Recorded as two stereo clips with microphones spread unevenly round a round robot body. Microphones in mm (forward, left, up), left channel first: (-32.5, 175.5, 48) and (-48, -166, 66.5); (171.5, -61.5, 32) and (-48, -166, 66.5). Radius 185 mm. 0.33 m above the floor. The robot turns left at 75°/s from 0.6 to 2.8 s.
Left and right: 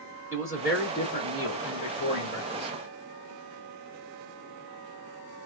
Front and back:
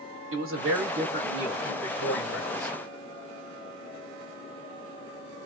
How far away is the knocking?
No knocking in this recording.